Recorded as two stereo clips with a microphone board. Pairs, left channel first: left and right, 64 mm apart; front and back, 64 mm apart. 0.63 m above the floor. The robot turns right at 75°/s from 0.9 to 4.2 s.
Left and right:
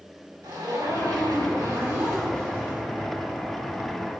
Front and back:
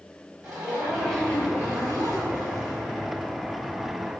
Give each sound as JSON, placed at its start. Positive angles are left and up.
{"t": 0.4, "sound": "a zipper", "azimuth_deg": -100, "distance_m": 5.0}